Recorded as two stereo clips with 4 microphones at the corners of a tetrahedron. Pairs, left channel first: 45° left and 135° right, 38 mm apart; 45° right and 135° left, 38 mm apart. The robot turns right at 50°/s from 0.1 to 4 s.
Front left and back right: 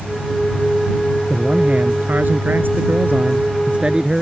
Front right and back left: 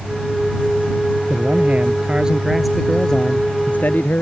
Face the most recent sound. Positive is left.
turn(degrees=-70)